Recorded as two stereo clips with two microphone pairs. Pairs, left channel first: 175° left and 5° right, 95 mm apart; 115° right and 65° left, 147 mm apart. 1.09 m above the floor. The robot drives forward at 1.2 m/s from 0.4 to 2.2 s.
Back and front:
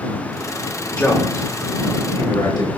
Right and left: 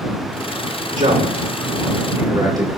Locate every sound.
1.0 s a man speaking: 95° left, 2 m; by 2.7 s 125° left, 3 m